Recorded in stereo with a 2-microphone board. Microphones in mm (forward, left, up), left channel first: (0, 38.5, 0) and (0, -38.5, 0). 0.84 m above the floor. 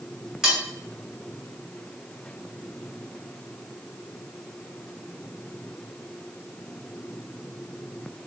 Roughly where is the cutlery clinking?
Centre.